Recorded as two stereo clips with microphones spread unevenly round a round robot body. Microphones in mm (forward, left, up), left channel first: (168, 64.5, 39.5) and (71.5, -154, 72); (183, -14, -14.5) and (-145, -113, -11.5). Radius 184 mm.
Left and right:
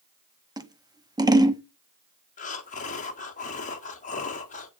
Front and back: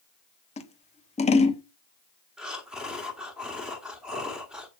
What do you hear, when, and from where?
0.6 s scissors: 40° right, 1.3 m
2.4 s breathing: 110° left, 1.3 m